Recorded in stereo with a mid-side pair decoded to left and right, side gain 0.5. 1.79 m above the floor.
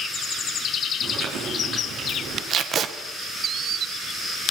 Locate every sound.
1.0 s chewing: 60° right, 7.5 m
2.5 s tape being pulled: 55° right, 2 m